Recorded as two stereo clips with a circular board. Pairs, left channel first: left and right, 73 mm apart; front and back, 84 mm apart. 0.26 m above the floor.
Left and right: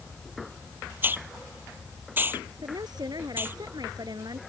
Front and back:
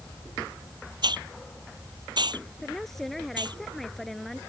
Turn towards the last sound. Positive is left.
turn(degrees=-85)